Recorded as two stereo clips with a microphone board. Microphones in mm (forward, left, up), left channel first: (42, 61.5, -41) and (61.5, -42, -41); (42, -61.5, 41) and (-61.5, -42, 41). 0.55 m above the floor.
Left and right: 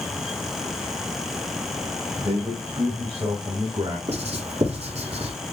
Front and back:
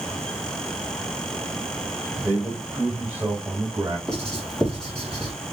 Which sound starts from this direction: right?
Writing, at 4.1 s.